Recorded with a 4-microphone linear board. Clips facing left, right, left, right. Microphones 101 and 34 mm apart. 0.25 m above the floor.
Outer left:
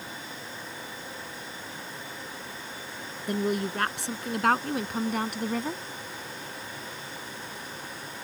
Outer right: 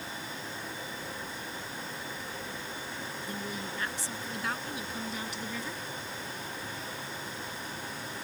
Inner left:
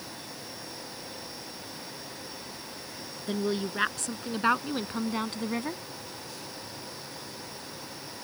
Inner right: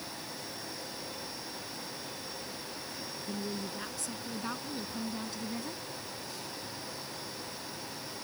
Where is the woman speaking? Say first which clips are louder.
Outer left 14 dB, inner left 9 dB; 70° left (ahead or behind); by 5.8 s 55° left (ahead or behind).